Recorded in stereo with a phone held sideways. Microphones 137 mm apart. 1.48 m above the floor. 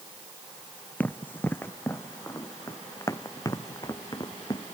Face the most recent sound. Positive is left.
turn(degrees=30)  # may be behind; listen again after turning